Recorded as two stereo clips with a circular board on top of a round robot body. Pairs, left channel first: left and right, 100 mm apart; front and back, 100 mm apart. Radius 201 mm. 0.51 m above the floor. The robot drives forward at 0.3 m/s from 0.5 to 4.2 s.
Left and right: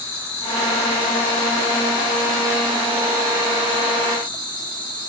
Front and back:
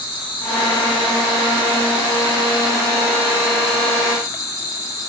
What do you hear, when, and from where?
0.0 s an insect: 40° left, 4 m; by 5.1 s 50° left, 3.5 m